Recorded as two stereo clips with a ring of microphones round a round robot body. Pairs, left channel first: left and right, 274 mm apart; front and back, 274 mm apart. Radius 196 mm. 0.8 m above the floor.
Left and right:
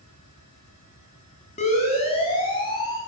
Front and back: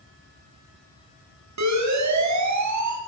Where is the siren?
165° left, 9 m; by 3.0 s 170° left, 9.5 m.